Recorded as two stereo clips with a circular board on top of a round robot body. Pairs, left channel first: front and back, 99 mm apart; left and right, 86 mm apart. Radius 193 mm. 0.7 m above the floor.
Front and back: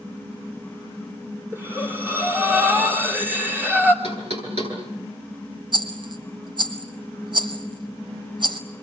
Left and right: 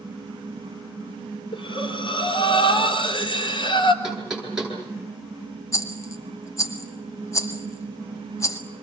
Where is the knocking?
175° right, 10 m.